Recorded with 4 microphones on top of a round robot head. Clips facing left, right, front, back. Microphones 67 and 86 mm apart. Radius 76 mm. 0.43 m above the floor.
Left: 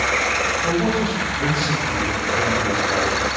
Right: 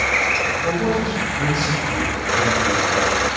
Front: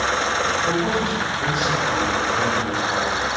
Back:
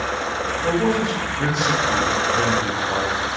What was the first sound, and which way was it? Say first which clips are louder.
A man speaking: even, back 1 dB; 160° right.